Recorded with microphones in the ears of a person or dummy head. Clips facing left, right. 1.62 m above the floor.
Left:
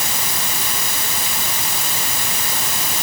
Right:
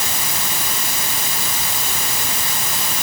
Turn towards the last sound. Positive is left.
No sound to turn to.